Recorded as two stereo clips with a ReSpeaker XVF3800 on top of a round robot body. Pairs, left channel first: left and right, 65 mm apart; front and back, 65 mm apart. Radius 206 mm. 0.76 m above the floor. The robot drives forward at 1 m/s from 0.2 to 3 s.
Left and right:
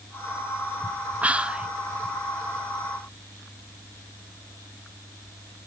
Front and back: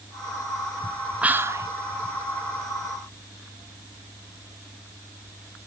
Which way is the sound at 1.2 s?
125° right.